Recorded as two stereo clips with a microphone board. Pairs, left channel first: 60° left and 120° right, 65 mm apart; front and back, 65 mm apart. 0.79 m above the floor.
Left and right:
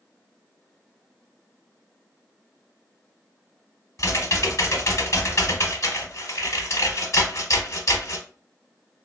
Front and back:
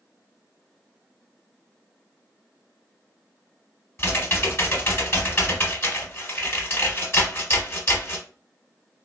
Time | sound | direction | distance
4.0 | typing on a keyboard | 40° left | 1.0 m